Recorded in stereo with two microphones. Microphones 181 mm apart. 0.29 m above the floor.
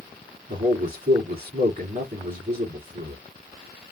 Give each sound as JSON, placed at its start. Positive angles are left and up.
{"t": 0.5, "sound": "a man speaking", "side_deg": -50, "distance_m": 2.5}